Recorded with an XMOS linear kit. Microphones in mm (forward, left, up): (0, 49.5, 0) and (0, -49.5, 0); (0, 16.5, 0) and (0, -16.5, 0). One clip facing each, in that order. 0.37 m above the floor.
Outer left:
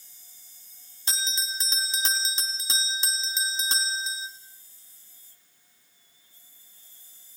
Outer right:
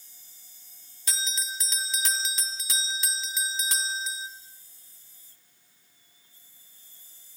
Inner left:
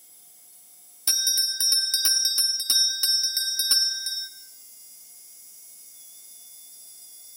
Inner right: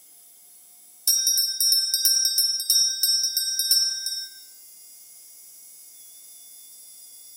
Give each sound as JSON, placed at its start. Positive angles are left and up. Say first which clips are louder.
{"t": 1.1, "sound": "a bell", "louder": "outer left 1 dB, even", "side_deg": 25, "distance_m": 2.5}